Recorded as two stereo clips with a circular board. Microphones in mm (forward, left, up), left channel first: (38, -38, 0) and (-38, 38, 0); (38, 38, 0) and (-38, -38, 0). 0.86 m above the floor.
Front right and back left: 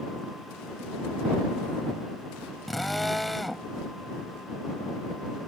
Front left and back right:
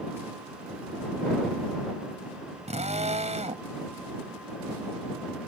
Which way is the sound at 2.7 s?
135° right.